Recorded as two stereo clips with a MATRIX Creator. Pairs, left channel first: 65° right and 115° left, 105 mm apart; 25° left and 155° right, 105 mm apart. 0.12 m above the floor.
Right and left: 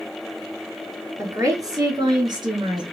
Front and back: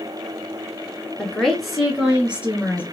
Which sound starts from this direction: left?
A woman speaking, at 1.2 s.